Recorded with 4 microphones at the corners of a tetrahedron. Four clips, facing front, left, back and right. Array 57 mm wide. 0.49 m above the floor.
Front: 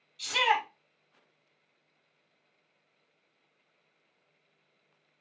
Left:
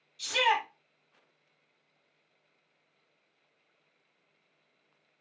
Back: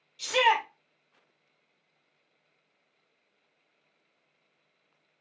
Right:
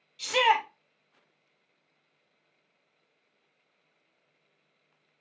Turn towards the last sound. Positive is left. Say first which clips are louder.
# right 3 dB, back 3 dB
turn(degrees=-130)